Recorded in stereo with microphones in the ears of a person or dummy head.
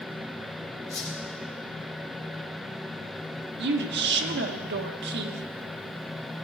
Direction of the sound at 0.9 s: 15° left (ahead or behind).